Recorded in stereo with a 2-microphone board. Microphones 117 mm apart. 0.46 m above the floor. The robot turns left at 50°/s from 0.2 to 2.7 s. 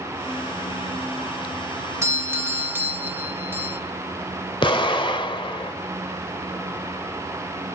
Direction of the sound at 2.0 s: 25° right (ahead or behind).